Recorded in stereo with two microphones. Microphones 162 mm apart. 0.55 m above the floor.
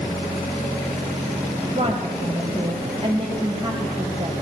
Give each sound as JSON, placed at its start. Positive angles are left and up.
{"t": 1.7, "sound": "a woman speaking", "side_deg": -35, "distance_m": 3.0}